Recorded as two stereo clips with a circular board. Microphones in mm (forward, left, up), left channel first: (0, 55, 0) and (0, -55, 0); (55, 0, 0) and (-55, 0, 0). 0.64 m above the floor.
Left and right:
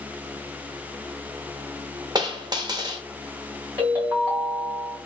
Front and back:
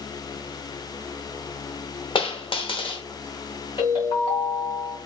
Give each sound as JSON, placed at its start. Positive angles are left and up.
{"t": 2.1, "sound": "a dropped coin", "azimuth_deg": -40, "distance_m": 0.6}
{"t": 3.8, "sound": "a ringtone", "azimuth_deg": -30, "distance_m": 2.0}